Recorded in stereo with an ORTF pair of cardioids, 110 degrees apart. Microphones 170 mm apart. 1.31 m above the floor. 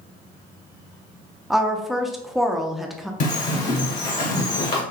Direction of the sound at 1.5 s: Straight ahead.